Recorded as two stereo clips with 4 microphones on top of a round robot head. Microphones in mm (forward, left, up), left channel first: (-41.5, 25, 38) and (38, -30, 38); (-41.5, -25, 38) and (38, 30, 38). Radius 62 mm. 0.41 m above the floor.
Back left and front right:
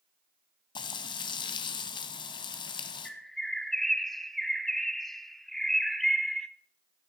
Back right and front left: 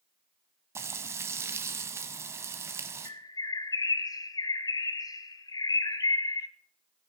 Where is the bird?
130° right, 0.8 m.